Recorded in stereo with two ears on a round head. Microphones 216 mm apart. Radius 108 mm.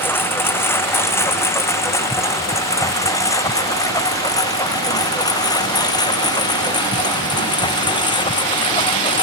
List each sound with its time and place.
0.0 s a lawn mower: 10° left (ahead or behind); by 9.2 s 20° left (ahead or behind)